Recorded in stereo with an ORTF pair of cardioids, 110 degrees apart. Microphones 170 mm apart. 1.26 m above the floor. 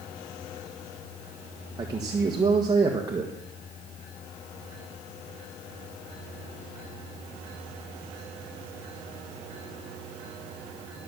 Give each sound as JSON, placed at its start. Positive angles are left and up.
{"t": 1.8, "sound": "a man speaking", "azimuth_deg": -25, "distance_m": 1.5}